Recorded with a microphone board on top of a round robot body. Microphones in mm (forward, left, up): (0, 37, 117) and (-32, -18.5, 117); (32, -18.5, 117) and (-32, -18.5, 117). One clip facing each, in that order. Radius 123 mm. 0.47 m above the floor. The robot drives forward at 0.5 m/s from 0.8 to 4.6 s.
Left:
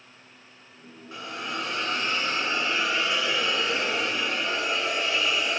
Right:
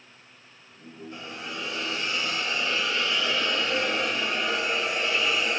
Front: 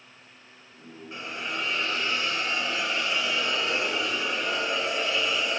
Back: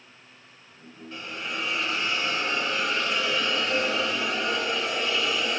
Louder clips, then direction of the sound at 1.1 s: Left 5 dB, even; 75° left.